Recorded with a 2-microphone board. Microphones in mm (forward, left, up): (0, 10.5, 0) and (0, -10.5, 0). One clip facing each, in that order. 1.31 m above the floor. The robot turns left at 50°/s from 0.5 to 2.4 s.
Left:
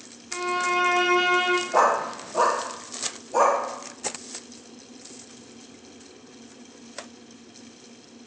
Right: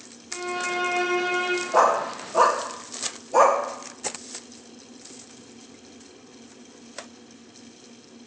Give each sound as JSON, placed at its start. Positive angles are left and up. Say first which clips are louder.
{"t": 0.3, "sound": "a violin", "louder": "left 4 dB", "azimuth_deg": 155, "distance_m": 0.8}
{"t": 1.7, "sound": "a dog barking", "louder": "right 3 dB", "side_deg": 0, "distance_m": 0.9}